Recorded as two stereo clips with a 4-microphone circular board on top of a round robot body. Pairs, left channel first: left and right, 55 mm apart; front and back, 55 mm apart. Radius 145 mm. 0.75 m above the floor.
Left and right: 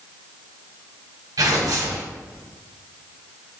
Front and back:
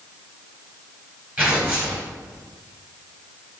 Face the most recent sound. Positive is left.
turn(degrees=-115)